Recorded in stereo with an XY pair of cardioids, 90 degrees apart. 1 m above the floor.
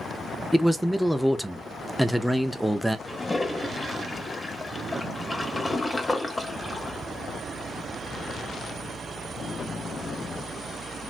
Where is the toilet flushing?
20° left, 0.7 m.